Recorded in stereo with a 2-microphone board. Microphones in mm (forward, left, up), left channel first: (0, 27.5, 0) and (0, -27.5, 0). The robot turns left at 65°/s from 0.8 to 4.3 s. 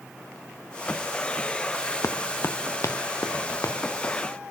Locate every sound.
2.0 s running footsteps: 65° left (ahead or behind), 0.7 m; by 4.1 s 50° left (ahead or behind), 3 m